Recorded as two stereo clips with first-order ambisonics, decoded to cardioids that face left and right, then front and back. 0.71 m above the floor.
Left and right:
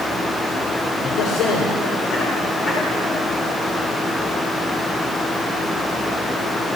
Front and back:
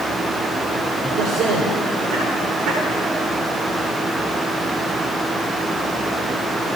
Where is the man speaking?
120° left, 4 m; by 2.8 s 160° left, 3 m.